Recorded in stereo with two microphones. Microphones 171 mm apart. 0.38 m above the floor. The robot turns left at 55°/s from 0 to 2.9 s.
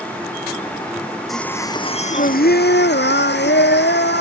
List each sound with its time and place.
1.3 s singing: straight behind; by 4.2 s 90° left